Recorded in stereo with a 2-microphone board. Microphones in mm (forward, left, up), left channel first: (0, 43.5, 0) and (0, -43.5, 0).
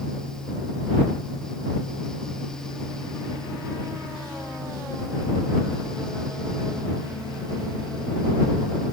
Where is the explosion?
I don't hear an explosion.